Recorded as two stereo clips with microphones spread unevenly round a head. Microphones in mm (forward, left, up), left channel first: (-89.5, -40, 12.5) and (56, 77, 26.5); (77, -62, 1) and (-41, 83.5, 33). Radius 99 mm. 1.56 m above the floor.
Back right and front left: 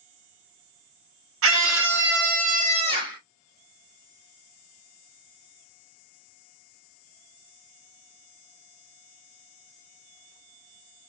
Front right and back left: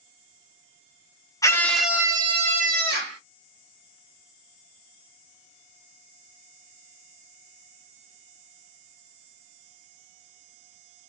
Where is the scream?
25° left, 1.0 m; by 3.2 s 105° left, 1.2 m.